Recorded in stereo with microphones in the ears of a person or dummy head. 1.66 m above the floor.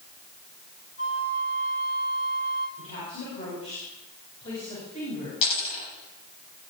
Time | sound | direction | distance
1.0 | a flute | 60° left (ahead or behind) | 2.5 m
2.8 | a woman speaking | 40° left (ahead or behind) | 8 m
5.4 | a dropped coin | 30° left (ahead or behind) | 6 m